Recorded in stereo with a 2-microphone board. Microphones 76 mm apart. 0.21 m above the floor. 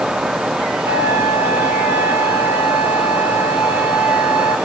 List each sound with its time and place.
0.8 s a flute: 25° right (ahead or behind), 2 m